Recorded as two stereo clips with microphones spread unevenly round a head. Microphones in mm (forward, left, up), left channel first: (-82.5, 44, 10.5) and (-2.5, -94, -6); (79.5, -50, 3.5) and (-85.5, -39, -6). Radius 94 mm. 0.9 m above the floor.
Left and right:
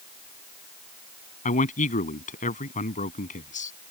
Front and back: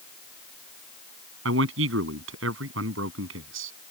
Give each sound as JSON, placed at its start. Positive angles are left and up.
{"t": 1.4, "sound": "a man speaking", "azimuth_deg": 160}